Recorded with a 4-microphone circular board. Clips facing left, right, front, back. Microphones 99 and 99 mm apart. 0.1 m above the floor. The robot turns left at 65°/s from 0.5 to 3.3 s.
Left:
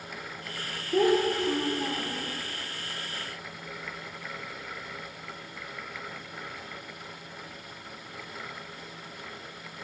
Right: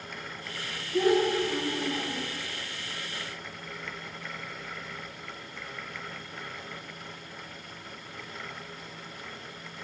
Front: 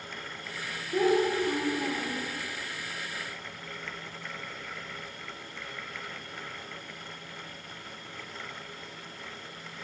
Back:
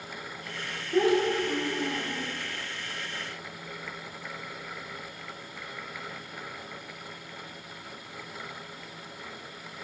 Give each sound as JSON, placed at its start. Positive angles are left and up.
{"t": 0.9, "sound": "a child speaking", "azimuth_deg": 95, "distance_m": 5.0}